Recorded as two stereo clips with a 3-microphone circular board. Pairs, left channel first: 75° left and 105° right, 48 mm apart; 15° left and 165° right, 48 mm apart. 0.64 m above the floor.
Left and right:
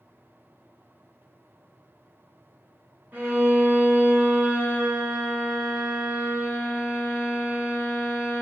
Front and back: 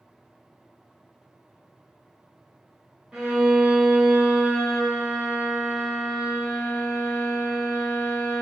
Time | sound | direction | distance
3.1 | a violin | 95° right | 1.3 m